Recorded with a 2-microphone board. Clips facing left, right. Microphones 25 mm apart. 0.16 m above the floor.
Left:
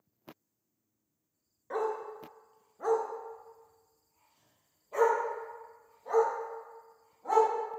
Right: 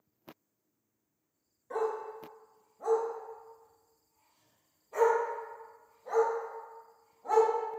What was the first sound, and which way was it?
A dog barking, 35° left (ahead or behind).